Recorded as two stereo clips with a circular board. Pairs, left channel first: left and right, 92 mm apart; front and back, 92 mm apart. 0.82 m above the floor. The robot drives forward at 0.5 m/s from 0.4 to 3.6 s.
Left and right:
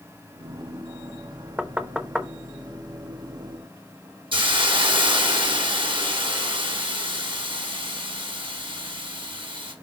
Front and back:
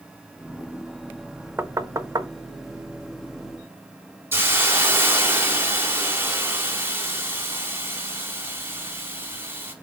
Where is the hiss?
115° right, 1.7 m.